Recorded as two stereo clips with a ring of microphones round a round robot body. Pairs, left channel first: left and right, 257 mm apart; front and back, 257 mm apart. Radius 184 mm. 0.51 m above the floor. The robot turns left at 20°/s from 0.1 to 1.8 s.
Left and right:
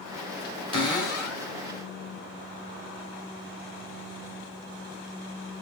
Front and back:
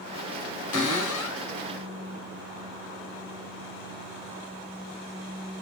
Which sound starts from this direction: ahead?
A cupboard door, at 0.7 s.